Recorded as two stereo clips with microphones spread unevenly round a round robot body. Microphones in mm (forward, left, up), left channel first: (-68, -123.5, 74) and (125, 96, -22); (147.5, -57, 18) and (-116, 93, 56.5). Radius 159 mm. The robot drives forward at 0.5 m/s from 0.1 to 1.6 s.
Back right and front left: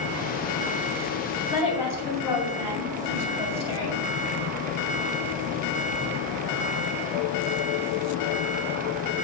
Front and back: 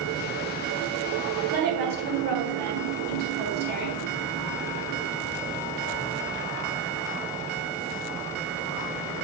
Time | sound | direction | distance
1.5 | a woman speaking | 150° right | 3 m